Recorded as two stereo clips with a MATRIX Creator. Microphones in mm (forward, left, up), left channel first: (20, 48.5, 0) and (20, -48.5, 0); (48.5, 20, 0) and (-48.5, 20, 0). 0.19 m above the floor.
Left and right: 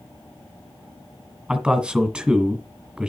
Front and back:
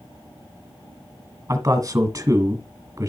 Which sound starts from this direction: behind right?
A man speaking, at 1.5 s.